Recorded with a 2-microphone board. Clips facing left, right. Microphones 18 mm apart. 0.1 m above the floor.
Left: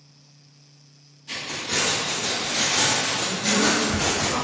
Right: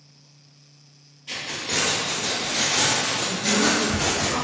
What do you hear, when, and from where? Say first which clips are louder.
1.3 s keys jangling: even; 55° right (ahead or behind), 1.6 m; by 4.3 s 25° left (ahead or behind), 1.4 m
3.3 s a woman speaking: even; 35° right (ahead or behind), 1.8 m